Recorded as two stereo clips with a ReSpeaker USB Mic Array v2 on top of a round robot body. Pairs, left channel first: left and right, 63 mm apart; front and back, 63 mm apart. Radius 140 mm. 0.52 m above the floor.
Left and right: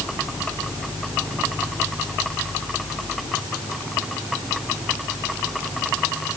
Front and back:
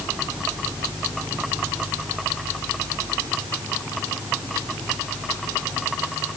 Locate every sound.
Only background noise.